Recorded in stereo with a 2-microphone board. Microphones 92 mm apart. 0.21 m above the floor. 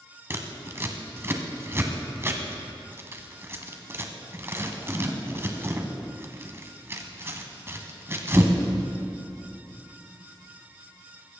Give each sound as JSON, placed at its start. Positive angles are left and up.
{"t": 0.3, "sound": "scissors", "side_deg": -25, "distance_m": 1.4}